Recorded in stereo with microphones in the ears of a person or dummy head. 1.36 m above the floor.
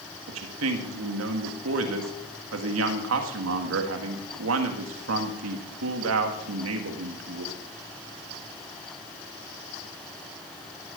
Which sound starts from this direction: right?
A man speaking, at 0.3 s.